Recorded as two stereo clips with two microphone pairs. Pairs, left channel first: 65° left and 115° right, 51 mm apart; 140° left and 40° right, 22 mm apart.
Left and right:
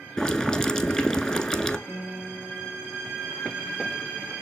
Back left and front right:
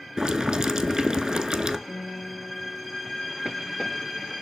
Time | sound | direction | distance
0.2 | boiling | straight ahead | 0.6 m
1.9 | a guitar | 125° left | 2.5 m